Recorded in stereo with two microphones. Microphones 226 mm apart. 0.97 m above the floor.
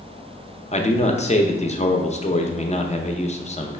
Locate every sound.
0.7 s a man speaking: 30° left (ahead or behind), 0.5 m